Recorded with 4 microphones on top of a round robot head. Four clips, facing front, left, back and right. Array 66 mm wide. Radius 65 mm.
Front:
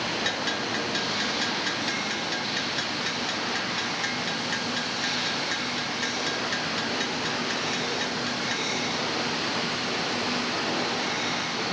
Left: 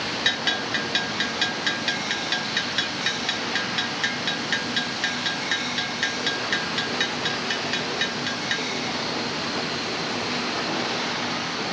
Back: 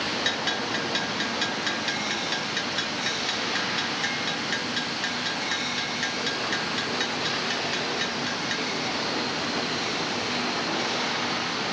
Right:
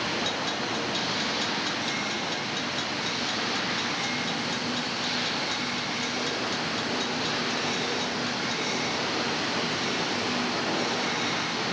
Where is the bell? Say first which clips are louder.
Left 4 dB, back 1 dB; 85° left.